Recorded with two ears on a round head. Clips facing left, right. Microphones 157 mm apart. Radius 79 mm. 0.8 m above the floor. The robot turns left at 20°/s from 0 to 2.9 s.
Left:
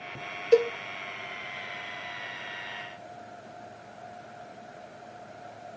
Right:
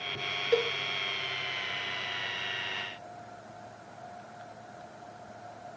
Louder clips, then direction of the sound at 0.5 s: Left 7 dB; 35° left (ahead or behind).